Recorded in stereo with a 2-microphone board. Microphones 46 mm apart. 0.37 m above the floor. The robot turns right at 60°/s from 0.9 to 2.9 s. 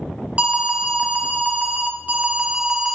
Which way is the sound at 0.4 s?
135° right.